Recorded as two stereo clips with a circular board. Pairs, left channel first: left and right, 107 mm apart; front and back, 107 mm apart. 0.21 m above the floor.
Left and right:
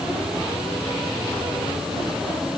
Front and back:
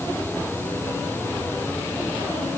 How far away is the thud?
No thud in this recording.